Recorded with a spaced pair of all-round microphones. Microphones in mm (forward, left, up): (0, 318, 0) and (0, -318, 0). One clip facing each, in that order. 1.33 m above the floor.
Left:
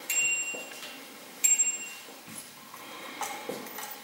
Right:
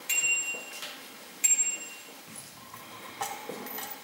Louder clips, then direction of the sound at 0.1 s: Left 2 dB; 75° right (ahead or behind).